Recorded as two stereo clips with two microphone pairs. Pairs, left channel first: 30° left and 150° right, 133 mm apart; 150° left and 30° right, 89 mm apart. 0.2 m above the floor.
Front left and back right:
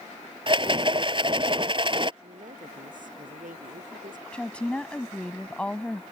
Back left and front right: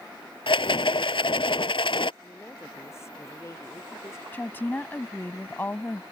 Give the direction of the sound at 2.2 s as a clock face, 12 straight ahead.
5 o'clock.